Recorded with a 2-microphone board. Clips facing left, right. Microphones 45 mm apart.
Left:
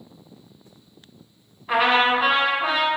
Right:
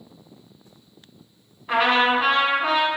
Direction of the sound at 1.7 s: 5° left (ahead or behind).